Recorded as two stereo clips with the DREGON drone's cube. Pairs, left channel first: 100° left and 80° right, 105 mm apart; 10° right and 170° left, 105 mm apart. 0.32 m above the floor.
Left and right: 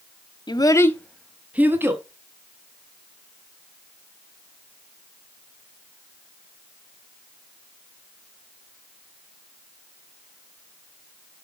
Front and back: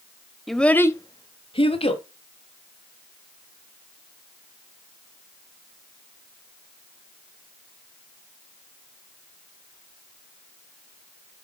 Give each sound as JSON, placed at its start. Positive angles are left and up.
{"t": 0.5, "sound": "a child speaking", "azimuth_deg": 80, "distance_m": 1.0}